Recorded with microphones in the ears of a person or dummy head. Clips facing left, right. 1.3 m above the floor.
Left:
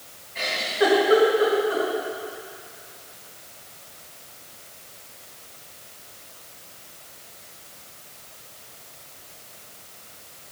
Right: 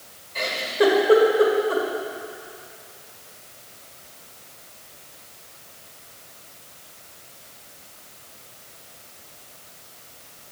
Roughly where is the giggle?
Right.